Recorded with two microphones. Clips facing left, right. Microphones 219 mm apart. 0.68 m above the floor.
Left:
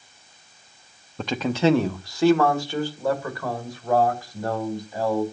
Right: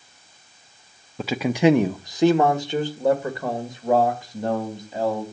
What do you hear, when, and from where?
1.2 s a man speaking: 5° right (ahead or behind), 0.5 m; by 5.2 s 20° right (ahead or behind), 3.5 m